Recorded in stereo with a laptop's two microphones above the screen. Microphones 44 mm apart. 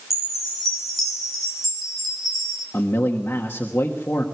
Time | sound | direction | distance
0.1 | a chime | centre (ahead or behind) | 3.5 m
2.7 | a man speaking | 65° left (ahead or behind) | 1.5 m